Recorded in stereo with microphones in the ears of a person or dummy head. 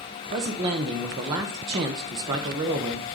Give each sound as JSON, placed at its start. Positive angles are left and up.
{"t": 0.3, "sound": "a man speaking", "side_deg": -20, "distance_m": 0.8}